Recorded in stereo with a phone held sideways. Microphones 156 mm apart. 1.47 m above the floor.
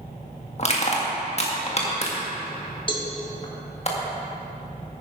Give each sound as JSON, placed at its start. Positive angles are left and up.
{"t": 0.6, "sound": "crushing", "side_deg": 45, "distance_m": 1.7}
{"t": 2.9, "sound": "a cowbell", "side_deg": 35, "distance_m": 1.3}